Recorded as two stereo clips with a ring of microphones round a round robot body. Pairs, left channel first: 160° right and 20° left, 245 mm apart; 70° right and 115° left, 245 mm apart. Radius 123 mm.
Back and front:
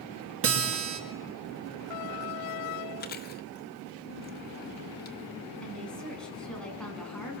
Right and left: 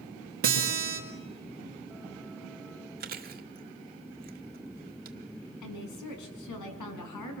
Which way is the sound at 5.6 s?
70° right.